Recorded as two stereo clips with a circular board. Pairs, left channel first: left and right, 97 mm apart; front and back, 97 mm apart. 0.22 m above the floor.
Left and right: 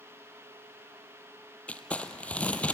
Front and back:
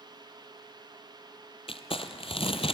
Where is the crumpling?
15° left, 1.2 m.